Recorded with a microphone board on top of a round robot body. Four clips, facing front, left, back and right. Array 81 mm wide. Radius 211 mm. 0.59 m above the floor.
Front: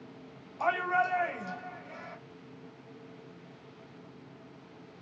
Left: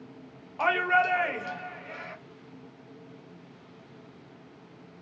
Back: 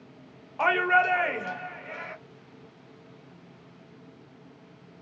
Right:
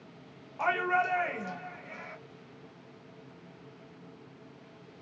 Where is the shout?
165° left, 1.3 m.